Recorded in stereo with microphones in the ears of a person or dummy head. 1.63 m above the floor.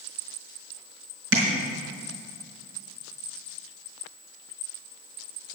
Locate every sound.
1.3 s tapping: 70° right (ahead or behind), 4.5 m